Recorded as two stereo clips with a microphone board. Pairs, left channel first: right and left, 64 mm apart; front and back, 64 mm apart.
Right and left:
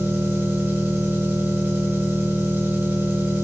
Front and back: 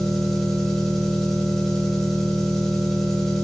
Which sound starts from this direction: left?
An engine running, at 0.0 s.